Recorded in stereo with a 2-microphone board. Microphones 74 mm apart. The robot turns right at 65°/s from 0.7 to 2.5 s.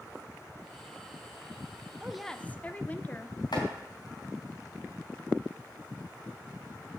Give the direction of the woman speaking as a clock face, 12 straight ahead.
12 o'clock.